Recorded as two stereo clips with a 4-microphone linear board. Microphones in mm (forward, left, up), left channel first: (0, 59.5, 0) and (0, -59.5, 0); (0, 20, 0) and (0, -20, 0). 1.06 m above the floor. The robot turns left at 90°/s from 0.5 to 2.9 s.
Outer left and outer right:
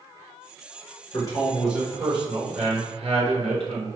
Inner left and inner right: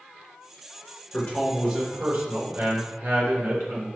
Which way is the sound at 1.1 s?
45° left.